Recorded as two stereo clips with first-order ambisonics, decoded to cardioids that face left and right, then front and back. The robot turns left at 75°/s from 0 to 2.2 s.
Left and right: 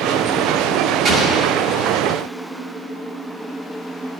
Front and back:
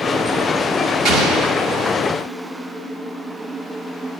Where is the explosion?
160° right, 1.4 m; by 1.9 s 135° left, 1.4 m.